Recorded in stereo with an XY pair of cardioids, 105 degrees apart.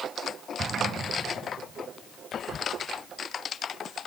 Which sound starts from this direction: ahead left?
Whispering, at 2.3 s.